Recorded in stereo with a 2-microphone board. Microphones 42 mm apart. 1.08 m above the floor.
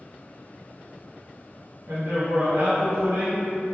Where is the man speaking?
55° right (ahead or behind), 0.8 m.